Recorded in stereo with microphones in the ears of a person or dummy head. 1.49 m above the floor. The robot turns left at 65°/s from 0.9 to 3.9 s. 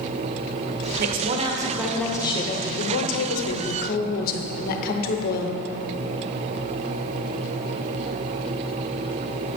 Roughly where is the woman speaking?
Behind right.